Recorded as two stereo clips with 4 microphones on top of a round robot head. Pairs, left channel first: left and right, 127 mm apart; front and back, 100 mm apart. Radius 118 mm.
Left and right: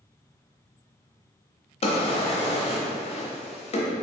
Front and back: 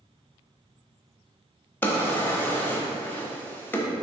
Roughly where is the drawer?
Left.